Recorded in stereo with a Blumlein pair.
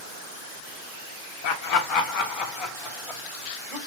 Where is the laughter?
45° left, 0.8 m; by 3.8 s 25° left, 2 m.